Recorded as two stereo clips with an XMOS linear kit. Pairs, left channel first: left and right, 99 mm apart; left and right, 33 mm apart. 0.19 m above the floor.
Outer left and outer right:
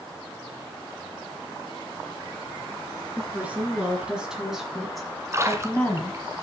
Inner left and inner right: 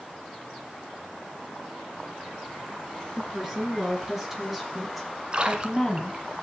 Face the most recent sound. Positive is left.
turn(degrees=-30)  # may be behind; listen again after turning